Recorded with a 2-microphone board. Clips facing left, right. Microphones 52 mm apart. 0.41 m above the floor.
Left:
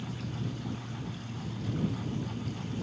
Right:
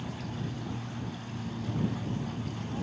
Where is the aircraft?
50° right (ahead or behind); by 2.8 s 55° right (ahead or behind).